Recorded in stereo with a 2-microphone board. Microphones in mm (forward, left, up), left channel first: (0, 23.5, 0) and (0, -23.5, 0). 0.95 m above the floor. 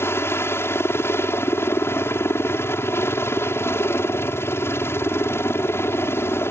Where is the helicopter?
60° left (ahead or behind).